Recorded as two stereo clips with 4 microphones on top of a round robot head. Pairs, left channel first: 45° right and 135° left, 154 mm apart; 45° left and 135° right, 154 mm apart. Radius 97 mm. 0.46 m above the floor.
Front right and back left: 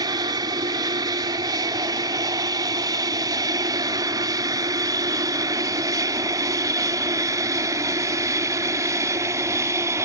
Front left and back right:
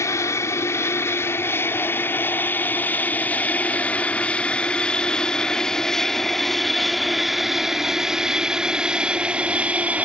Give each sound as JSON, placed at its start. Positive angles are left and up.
{"t": 0.0, "sound": "an aircraft", "azimuth_deg": 100}